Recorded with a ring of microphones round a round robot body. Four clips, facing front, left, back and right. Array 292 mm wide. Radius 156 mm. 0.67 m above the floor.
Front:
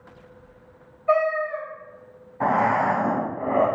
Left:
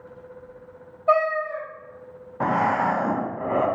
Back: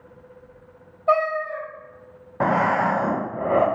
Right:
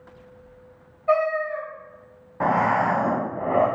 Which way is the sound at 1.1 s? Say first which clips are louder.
Left 1 dB, even; 150° left.